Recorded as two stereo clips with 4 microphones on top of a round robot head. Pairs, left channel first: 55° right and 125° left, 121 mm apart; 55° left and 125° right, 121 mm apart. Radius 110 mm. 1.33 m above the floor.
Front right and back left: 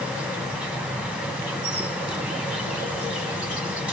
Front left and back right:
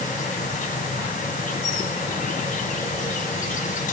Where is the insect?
45° left, 0.9 m.